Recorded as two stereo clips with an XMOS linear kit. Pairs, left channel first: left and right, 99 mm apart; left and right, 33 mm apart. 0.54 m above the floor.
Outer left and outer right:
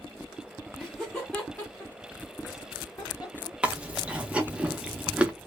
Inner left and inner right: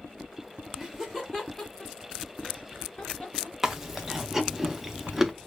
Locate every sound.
0.8 s laughter: centre (ahead or behind), 0.8 m; by 3.5 s 40° left (ahead or behind), 1.4 m
3.6 s chewing: 10° right (ahead or behind), 0.5 m